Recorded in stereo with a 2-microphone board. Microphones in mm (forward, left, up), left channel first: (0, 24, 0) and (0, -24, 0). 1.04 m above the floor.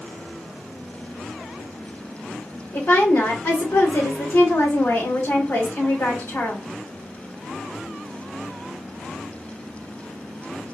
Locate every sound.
2.7 s a woman speaking: 85° left, 3.5 m